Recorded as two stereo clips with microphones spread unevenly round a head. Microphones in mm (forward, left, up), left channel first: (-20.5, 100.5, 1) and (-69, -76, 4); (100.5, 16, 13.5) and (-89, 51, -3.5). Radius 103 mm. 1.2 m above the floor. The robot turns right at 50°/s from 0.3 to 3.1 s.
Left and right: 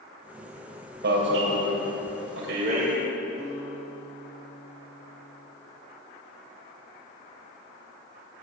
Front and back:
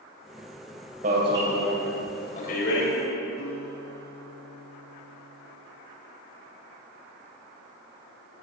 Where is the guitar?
5° left, 8.5 m.